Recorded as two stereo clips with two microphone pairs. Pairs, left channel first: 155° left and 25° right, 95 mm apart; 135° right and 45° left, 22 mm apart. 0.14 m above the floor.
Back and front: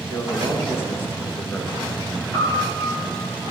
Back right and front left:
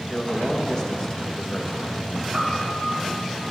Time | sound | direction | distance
0.1 | a man speaking | 175° right | 2.0 m
2.3 | a piano | 130° left | 3 m